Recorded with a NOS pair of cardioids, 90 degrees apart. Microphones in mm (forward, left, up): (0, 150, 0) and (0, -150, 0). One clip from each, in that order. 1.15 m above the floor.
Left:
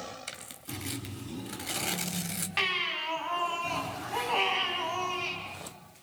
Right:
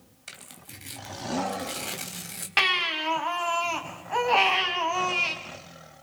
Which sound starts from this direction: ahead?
Tearing paper, at 0.3 s.